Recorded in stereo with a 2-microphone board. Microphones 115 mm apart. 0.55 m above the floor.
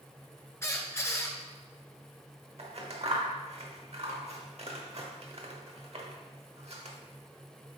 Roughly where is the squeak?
Left.